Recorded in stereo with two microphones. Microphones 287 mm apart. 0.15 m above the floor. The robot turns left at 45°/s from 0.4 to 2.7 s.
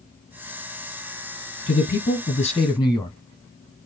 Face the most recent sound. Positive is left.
turn(degrees=20)